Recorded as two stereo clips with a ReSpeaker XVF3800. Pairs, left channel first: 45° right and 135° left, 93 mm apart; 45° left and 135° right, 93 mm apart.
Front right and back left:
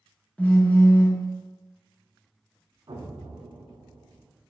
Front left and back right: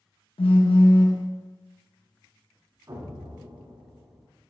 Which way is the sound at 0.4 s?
30° left.